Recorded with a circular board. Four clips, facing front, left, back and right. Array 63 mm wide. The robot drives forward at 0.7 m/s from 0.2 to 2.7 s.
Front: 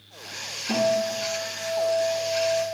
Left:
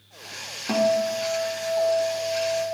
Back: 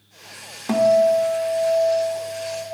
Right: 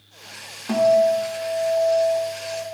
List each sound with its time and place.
0.7 s a guitar: straight behind, 1.4 m